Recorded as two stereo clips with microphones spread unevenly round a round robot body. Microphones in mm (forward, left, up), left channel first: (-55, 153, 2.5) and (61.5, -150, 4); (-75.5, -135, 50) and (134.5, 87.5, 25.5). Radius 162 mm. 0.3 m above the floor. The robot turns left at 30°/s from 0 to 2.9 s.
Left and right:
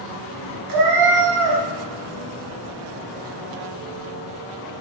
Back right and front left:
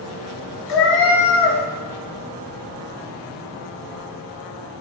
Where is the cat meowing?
95° right, 1.0 m; by 1.6 s 125° right, 1.0 m.